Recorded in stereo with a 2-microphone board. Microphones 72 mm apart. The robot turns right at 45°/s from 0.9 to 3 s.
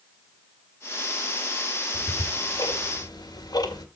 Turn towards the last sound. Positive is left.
turn(degrees=75)  # may be behind; listen again after turning